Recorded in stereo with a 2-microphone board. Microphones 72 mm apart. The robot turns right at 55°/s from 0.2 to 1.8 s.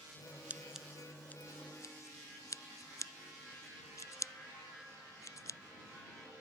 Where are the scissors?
20° right (ahead or behind); by 5.6 s 50° left (ahead or behind).